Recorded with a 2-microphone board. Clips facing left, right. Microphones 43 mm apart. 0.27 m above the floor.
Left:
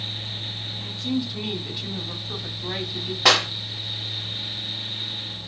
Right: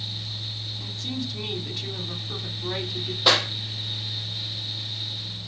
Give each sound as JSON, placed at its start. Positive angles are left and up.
{"t": 0.8, "sound": "a woman speaking", "side_deg": 10, "distance_m": 2.0}
{"t": 3.2, "sound": "a clap", "side_deg": 70, "distance_m": 4.5}